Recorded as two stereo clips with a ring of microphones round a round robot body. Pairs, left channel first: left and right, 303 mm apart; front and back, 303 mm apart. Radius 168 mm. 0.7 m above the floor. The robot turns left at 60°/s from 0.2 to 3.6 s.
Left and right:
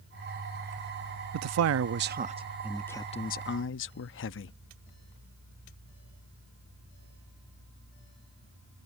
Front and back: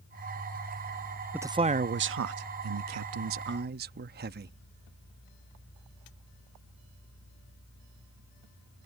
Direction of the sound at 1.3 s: 95° right.